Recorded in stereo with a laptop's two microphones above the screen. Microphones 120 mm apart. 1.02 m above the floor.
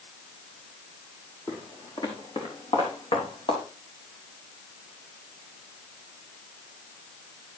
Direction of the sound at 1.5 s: 35° left (ahead or behind).